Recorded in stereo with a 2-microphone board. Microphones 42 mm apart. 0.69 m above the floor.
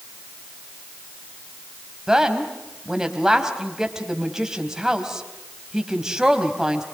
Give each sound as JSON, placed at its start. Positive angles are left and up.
{"t": 2.1, "sound": "a woman speaking", "side_deg": -15, "distance_m": 3.5}